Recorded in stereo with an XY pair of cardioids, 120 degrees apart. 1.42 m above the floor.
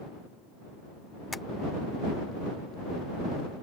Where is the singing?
No singing in this recording.